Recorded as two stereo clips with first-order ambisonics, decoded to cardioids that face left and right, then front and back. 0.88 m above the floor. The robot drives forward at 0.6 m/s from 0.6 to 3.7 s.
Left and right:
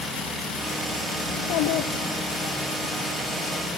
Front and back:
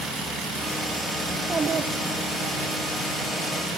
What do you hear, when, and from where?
1.3 s a child speaking: 90° left, 0.7 m; by 2.6 s 145° left, 1.0 m